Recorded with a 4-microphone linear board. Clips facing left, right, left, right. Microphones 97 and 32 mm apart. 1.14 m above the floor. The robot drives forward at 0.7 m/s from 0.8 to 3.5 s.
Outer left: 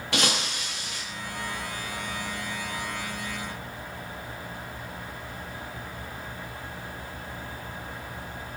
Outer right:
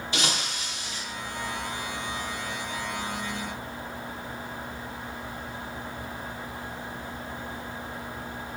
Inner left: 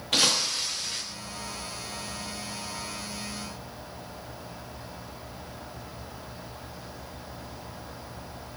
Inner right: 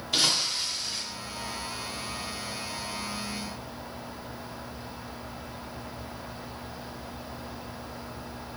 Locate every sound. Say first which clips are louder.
0.1 s breaking glass: outer left 3 dB, inner left 1 dB; 70° left (ahead or behind), 7.5 m